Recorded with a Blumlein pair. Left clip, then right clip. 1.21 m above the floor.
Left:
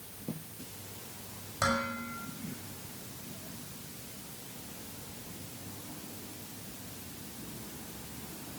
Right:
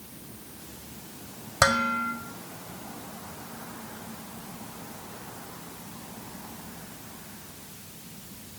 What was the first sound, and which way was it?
Dishes clattering, 30° right.